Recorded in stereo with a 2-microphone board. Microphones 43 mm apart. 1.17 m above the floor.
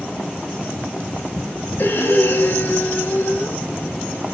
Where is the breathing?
50° left (ahead or behind), 1.8 m.